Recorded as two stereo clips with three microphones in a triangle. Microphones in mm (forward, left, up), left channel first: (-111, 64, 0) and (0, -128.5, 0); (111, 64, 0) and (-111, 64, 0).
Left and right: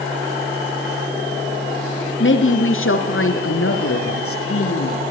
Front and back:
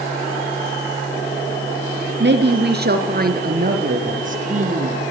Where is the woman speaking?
145° left, 3.5 m; by 5.0 s 125° left, 6 m.